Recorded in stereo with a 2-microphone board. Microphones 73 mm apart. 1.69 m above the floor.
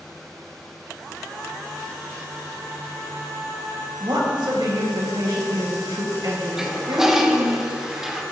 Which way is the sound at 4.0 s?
80° right.